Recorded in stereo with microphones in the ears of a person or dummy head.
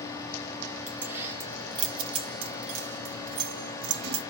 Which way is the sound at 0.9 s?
10° right (ahead or behind).